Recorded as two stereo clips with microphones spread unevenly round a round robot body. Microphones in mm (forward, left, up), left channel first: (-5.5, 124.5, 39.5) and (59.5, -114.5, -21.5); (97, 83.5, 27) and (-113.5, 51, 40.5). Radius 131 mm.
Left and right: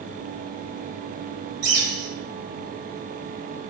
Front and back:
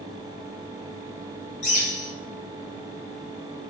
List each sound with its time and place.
1.6 s a bird: 50° right, 3 m